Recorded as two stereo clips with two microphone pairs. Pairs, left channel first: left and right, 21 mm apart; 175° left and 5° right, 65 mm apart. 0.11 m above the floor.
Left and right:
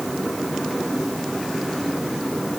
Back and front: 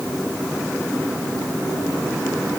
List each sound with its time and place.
Only background noise.